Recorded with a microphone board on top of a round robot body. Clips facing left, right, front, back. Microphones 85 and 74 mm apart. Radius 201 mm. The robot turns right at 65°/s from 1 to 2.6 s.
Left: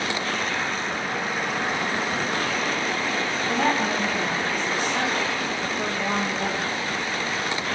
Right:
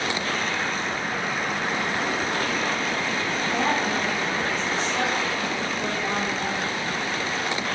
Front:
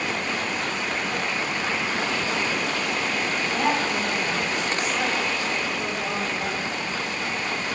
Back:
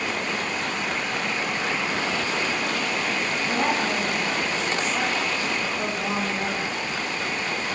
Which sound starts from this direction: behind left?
A woman speaking, at 3.5 s.